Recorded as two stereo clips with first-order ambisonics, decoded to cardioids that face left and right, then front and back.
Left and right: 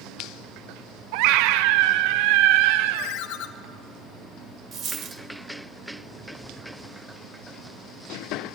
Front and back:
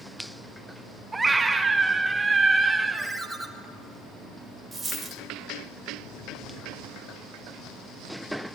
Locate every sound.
1.1 s a scream: 100° right, 1.0 m
2.9 s a ringtone: 90° left, 1.6 m
4.7 s a dropped coin: 110° right, 1.4 m